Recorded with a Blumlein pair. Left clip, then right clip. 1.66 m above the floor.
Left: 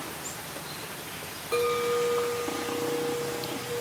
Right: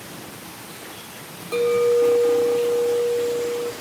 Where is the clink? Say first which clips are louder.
Right 8 dB; 5° right, 1.7 m.